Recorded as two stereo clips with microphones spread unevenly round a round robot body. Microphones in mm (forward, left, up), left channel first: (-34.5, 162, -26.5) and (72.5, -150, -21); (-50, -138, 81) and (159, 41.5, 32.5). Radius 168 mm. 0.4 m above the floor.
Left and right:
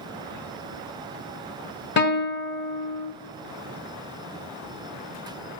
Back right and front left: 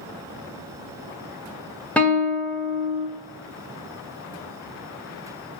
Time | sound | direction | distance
2.0 | a guitar | 120° left | 1.0 m